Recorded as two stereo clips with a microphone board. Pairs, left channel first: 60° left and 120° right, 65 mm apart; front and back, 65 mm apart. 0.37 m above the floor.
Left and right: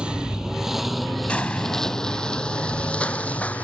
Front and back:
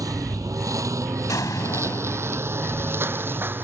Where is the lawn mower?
165° left; by 3.6 s 125° left.